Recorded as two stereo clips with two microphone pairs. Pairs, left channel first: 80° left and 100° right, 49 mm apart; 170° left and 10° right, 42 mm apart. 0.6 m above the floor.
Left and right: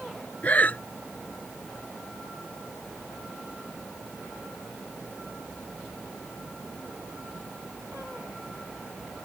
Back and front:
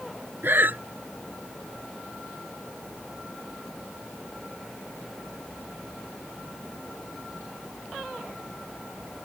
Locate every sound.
0.4 s breathing: 20° left